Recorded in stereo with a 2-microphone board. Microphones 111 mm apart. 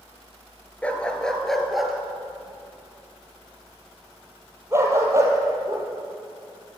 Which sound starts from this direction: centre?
A dog barking, at 0.8 s.